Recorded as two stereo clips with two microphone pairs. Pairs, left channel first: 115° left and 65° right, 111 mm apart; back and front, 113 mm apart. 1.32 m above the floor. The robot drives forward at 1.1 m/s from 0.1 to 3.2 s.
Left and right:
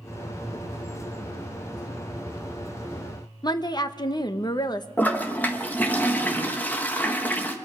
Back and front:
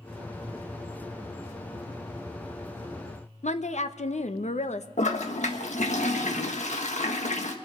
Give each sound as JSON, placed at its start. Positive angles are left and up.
{"t": 3.4, "sound": "a woman speaking", "azimuth_deg": 170, "distance_m": 0.8}
{"t": 5.0, "sound": "a toilet flushing", "azimuth_deg": -170, "distance_m": 1.3}